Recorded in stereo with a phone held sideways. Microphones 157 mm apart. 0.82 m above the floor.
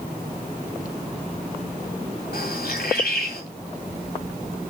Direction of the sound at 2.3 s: 80° left.